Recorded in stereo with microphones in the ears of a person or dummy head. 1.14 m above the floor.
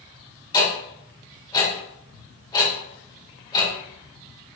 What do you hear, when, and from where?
0.5 s ticking: 20° left (ahead or behind), 0.9 m